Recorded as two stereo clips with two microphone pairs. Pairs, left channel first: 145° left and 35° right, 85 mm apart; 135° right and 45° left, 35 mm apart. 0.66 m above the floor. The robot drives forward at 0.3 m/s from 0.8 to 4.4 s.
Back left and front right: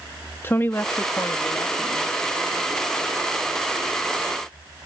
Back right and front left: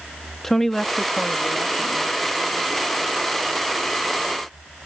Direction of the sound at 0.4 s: 150° left.